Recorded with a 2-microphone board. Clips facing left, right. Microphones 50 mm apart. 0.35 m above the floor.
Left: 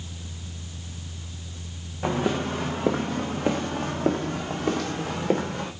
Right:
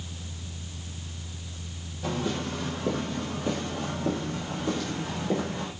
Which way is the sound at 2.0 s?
65° left (ahead or behind).